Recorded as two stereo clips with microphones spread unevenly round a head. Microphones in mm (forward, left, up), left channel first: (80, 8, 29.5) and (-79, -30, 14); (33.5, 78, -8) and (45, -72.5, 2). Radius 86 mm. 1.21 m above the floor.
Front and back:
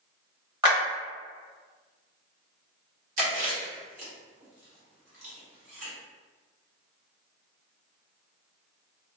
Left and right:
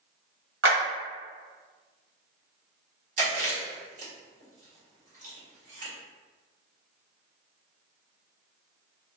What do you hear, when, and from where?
0.6 s a clap: 105° right, 1.8 m
3.2 s chewing: 125° right, 1.5 m